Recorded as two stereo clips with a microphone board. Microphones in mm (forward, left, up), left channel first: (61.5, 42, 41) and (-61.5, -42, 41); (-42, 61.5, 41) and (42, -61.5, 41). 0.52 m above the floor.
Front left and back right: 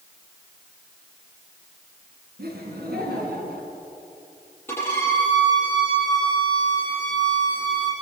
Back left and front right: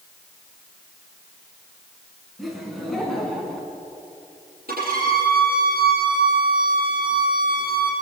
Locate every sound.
2.4 s laughter: 145° right, 7.5 m; by 3.7 s 150° right, 7 m
4.7 s a violin: 40° right, 8 m